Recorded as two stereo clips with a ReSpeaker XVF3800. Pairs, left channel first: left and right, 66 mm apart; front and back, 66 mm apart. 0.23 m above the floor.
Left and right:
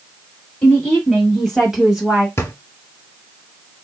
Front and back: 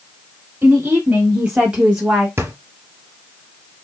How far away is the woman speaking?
About 1.8 m.